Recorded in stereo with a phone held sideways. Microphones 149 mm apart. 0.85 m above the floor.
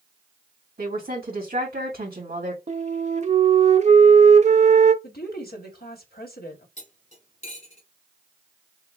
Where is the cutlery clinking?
50° left (ahead or behind), 2.5 m.